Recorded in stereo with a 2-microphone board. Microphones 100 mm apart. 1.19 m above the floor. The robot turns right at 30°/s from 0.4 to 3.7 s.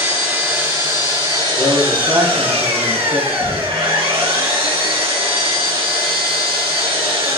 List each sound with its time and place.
0.0 s an engine running: 170° right, 2.0 m; by 7.4 s 70° right, 2.0 m
1.6 s a man speaking: 155° right, 1.0 m; by 3.3 s 105° right, 1.0 m
3.4 s knocking: 55° left (ahead or behind), 1.1 m; by 3.8 s 65° left (ahead or behind), 1.1 m